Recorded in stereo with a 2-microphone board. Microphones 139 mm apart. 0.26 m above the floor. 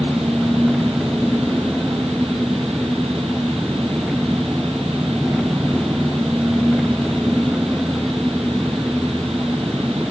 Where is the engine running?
5° right (ahead or behind).